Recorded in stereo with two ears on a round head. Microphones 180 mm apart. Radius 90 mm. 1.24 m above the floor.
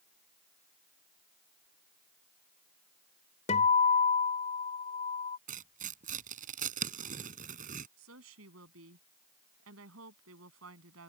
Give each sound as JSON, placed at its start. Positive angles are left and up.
{"t": 3.5, "sound": "a guitar", "side_deg": 35}
{"t": 5.5, "sound": "tearing paper", "side_deg": -45}
{"t": 8.0, "sound": "a woman speaking", "side_deg": -80}